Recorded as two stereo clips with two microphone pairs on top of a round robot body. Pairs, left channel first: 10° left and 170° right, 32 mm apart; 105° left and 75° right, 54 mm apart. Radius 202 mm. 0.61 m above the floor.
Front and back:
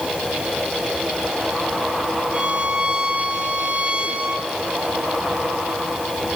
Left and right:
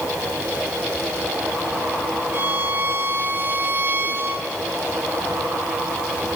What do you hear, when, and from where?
2.3 s a violin: 120° right, 3 m